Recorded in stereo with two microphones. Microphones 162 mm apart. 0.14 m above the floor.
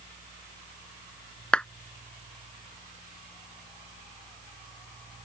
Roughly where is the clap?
Centre.